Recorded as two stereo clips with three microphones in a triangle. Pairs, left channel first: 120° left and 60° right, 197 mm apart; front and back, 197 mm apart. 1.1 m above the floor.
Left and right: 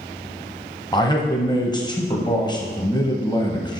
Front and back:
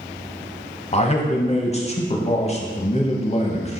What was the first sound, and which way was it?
A man speaking, 50° left.